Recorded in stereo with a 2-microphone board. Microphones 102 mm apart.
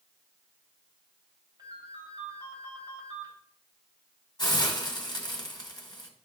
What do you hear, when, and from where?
1.6 s a ringtone: 45° right (ahead or behind), 3.5 m
4.4 s a hiss: 40° left (ahead or behind), 1.8 m